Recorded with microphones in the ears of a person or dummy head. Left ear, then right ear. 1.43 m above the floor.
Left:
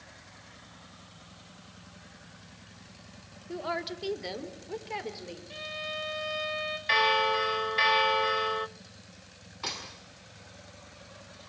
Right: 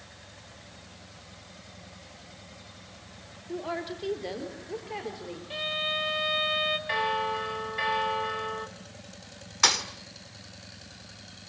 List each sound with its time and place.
3.5 s a woman speaking: 25° left (ahead or behind), 3 m; by 5.4 s 30° left (ahead or behind), 4.5 m
5.5 s a violin: 15° right (ahead or behind), 2 m
6.9 s a bell: 45° left (ahead or behind), 1.1 m
9.6 s a thud: 55° right (ahead or behind), 2 m